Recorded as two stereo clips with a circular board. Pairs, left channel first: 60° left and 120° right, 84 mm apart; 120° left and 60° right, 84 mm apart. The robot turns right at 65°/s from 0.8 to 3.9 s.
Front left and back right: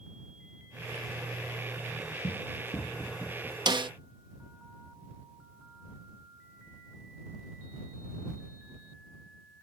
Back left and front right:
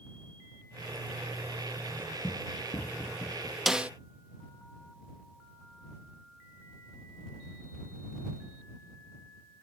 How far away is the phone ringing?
I don't hear a phone ringing.